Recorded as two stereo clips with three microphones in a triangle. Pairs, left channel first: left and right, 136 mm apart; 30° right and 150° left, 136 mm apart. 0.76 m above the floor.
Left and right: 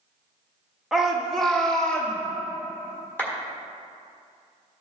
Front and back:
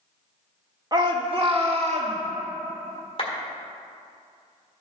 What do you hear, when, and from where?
0.9 s a shout: 175° right, 1.1 m; by 2.2 s 170° left, 1.7 m
3.2 s a clap: 15° left, 1.7 m